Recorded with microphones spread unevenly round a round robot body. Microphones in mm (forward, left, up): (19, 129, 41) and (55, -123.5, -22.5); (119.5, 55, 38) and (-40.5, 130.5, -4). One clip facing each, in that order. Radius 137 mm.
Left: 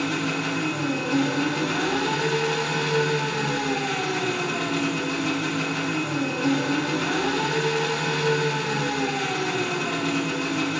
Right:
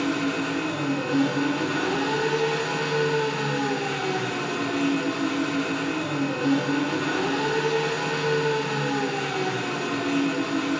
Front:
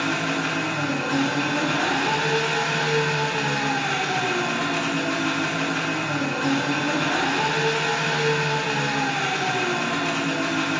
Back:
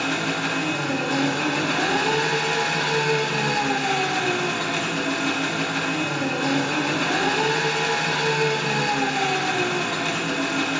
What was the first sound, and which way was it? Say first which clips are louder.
An engine running: right 2 dB, even; 145° left.